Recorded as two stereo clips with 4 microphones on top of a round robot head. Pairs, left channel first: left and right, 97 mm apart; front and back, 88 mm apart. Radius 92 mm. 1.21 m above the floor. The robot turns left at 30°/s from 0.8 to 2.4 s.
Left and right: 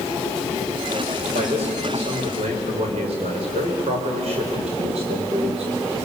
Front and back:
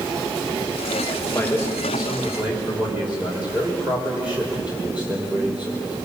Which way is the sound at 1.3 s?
70° right.